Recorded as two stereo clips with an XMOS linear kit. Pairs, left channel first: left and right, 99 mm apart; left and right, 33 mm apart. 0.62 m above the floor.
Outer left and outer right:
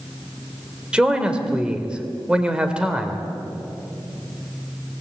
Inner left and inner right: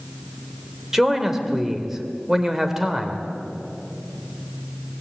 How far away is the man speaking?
About 2.5 m.